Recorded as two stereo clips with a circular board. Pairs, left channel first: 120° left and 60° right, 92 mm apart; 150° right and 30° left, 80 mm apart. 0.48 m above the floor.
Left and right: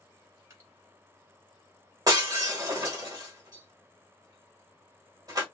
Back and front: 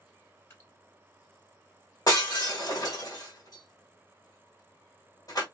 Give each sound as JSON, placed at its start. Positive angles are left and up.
{"t": 0.5, "sound": "dripping", "azimuth_deg": -100, "distance_m": 1.8}
{"t": 2.1, "sound": "breaking glass", "azimuth_deg": -110, "distance_m": 1.3}